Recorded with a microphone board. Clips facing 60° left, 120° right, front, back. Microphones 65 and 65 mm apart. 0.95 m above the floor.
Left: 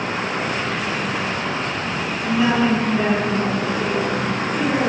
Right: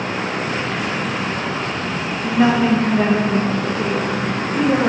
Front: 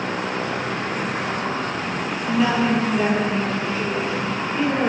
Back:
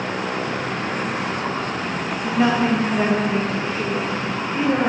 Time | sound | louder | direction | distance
2.2 | a woman speaking | right 3 dB, back 1 dB | 150° right | 0.9 m